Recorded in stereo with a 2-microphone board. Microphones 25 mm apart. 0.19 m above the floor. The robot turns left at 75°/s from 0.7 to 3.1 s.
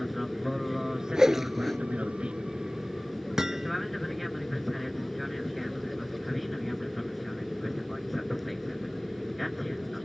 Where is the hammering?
25° right (ahead or behind).